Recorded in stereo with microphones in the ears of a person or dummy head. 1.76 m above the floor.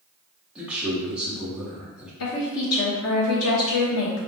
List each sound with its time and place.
0.6 s a man speaking: centre (ahead or behind), 1.7 m
2.2 s a woman speaking: 80° left, 1.6 m